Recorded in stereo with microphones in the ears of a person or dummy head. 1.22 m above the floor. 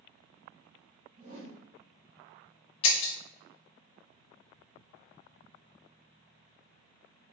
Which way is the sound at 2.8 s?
25° left (ahead or behind).